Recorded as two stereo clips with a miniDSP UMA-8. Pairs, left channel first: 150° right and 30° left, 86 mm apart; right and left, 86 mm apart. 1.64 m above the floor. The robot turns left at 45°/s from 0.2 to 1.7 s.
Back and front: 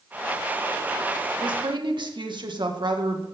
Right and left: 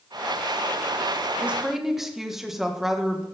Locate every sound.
1.4 s a woman speaking: 20° left, 1.8 m; by 3.2 s 5° left, 1.8 m